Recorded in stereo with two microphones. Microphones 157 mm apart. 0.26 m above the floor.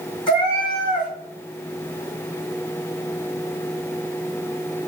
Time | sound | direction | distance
0.3 | a cat meowing | 30° left (ahead or behind) | 2.5 m